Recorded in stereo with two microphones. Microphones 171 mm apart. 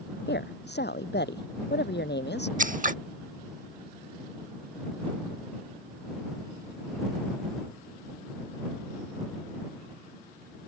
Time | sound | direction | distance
0.3 | a woman speaking | 85° left | ?
2.6 | scissors | 50° right (ahead or behind) | ?